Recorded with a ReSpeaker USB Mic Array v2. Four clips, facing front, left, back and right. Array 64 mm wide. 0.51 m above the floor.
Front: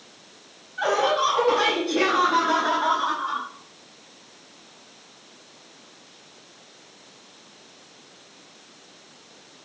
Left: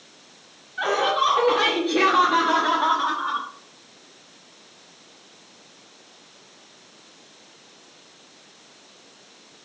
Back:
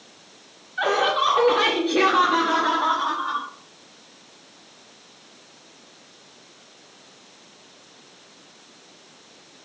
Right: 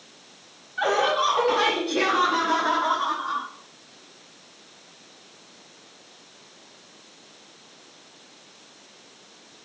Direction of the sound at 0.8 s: Straight behind.